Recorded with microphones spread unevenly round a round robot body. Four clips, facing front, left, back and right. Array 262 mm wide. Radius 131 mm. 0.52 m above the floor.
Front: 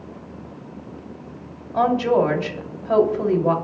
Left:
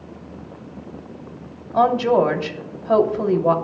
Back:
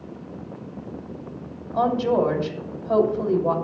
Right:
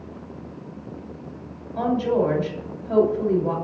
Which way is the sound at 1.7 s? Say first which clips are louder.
Left 5 dB, front 2 dB; 65° left.